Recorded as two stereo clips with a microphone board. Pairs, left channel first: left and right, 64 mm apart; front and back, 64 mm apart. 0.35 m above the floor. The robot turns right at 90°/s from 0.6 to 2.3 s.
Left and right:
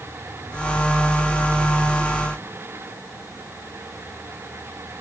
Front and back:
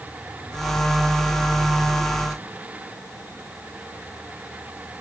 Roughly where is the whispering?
No whispering in this recording.